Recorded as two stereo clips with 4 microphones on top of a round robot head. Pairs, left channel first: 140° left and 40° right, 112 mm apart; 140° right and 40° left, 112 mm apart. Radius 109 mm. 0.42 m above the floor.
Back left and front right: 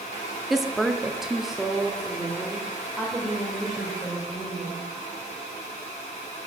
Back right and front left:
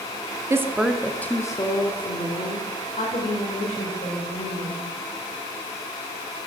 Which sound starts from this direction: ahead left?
A woman speaking, at 0.5 s.